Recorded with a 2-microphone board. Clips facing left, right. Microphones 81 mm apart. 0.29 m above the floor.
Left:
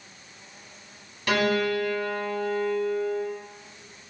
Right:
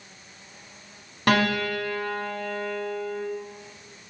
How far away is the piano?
About 0.6 m.